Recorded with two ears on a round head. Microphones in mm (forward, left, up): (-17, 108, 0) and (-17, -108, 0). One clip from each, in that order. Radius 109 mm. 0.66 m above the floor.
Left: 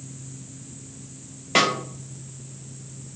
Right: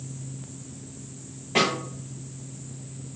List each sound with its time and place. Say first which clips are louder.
1.6 s a snare drum: left 3 dB; 45° left (ahead or behind), 0.7 m